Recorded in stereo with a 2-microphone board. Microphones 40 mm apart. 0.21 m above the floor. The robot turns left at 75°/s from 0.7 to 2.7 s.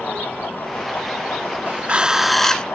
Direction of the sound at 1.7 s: 130° right.